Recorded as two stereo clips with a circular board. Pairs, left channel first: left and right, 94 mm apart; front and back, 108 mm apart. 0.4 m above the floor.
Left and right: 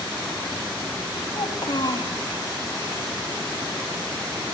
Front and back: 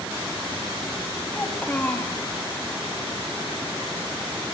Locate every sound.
1.3 s a child speaking: 70° left, 1.6 m